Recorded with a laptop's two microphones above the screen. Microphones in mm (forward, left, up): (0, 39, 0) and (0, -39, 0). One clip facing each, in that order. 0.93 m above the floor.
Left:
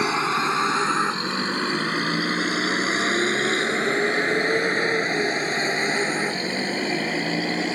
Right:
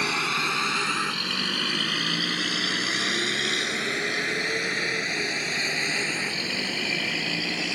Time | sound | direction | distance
0.0 | a vehicle | 25° left (ahead or behind) | ?